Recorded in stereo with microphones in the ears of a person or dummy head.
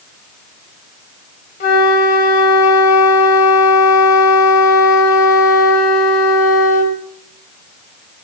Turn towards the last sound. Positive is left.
turn(degrees=40)  # may be behind; listen again after turning